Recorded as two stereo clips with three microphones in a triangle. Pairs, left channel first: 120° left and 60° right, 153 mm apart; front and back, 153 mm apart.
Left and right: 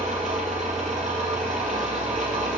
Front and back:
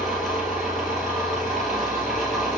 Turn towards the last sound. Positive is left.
turn(degrees=-90)